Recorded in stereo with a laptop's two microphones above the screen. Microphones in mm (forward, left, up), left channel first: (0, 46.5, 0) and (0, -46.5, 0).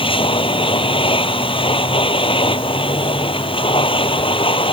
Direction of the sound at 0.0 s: 85° left.